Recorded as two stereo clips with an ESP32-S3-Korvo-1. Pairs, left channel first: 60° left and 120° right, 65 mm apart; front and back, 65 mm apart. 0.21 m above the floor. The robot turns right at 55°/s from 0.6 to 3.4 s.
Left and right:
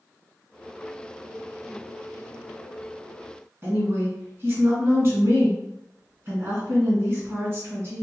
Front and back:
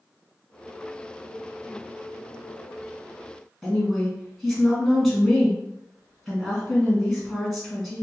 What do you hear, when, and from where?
3.6 s a woman speaking: 90° right, 1.8 m